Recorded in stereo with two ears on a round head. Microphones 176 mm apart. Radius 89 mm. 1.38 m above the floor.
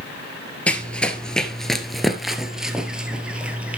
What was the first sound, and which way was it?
Running footsteps, 5° left (ahead or behind).